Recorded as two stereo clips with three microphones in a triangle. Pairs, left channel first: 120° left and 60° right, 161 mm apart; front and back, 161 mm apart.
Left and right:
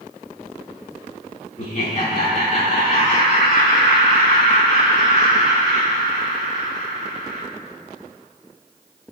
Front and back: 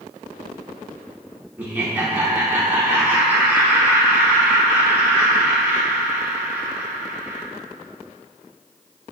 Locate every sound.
1.6 s laughter: 105° left, 1.0 m